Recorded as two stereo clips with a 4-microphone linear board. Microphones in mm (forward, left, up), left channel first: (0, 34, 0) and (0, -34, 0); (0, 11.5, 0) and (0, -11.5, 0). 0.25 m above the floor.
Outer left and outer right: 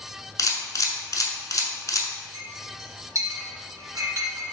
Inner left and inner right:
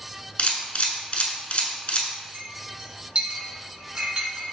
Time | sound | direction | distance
0.4 | a camera shutter | 60° left (ahead or behind) | 0.7 m
2.3 | a clink | 55° right (ahead or behind) | 1.3 m